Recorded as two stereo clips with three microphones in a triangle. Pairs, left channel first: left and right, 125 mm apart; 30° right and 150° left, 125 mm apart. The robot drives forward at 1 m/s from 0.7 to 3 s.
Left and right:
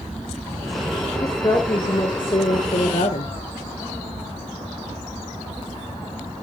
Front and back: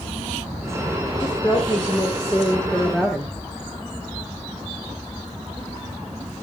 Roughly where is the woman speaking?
Ahead left.